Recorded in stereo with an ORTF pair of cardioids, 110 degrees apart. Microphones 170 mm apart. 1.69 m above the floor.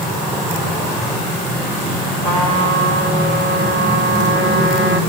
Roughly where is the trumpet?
Ahead left.